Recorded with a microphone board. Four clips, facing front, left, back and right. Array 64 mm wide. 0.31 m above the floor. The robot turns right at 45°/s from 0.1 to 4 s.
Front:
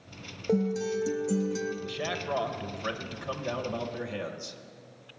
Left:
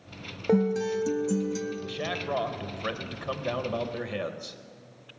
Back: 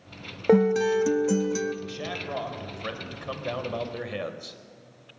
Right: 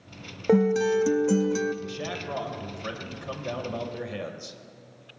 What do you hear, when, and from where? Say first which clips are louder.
0.5 s a guitar: right 4 dB, back 8 dB; 170° right, 0.6 m; by 1.7 s 110° right, 0.6 m
1.8 s a man speaking: left 2 dB, front 1 dB; 50° left, 1.0 m; by 4.6 s 145° left, 1.0 m